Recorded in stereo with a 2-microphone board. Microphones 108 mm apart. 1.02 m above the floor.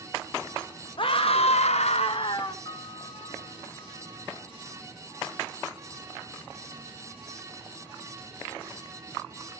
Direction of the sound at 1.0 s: 50° left (ahead or behind).